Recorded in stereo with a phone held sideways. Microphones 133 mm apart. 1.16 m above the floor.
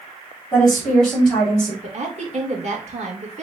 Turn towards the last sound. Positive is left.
turn(degrees=-60)  # may be behind; listen again after turning